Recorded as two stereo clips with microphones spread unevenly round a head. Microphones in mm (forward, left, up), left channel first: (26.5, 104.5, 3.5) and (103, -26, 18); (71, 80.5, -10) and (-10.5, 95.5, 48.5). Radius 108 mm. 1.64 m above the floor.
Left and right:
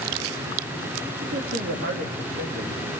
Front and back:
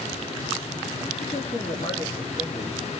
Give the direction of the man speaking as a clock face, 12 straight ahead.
2 o'clock.